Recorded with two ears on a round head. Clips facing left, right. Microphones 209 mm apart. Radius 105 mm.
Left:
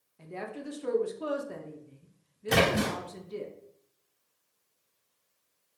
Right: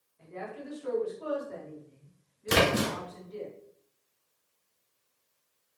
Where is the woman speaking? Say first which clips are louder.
Left 2 dB; 60° left (ahead or behind), 0.9 m.